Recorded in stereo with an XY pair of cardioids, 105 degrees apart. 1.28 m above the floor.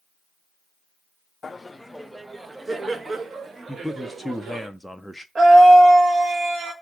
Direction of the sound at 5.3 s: 35° right.